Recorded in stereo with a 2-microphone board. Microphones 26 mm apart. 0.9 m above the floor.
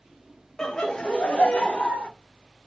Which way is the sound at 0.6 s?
30° left (ahead or behind).